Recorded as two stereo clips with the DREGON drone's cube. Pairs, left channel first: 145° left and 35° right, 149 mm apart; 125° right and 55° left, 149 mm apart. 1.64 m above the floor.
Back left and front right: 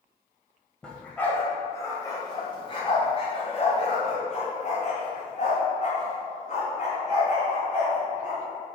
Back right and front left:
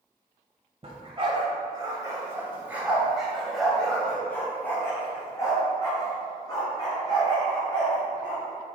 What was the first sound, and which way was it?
A dog barking, 65° left.